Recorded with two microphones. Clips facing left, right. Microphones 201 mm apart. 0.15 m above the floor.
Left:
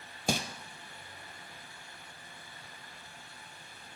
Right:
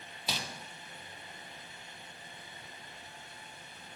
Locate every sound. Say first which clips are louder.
0.3 s crumpling: left 9 dB; 50° left (ahead or behind), 0.8 m